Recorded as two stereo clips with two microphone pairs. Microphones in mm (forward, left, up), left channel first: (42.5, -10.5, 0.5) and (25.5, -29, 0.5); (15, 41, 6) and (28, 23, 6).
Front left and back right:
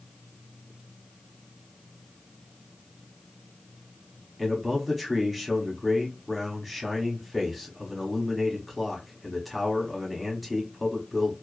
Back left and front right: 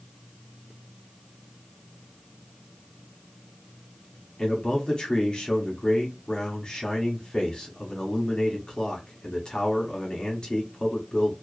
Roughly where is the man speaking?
Behind left.